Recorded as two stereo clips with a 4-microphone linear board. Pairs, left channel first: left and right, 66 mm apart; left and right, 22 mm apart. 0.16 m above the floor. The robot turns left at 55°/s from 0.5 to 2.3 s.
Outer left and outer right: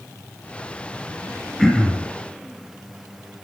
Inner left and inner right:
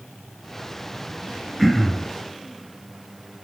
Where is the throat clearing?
5° left (ahead or behind), 2.5 m; by 2.1 s 25° left (ahead or behind), 2.5 m.